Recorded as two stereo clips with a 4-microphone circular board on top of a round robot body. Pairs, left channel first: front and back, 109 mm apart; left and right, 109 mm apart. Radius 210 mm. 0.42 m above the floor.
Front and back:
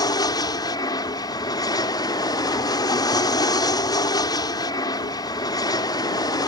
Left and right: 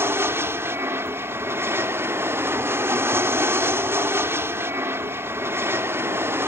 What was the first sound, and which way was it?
An aircraft, 30° right.